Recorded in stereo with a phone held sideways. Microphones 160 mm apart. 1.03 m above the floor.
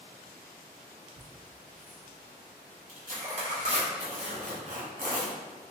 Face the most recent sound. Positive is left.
turn(degrees=-50)  # may be behind; listen again after turning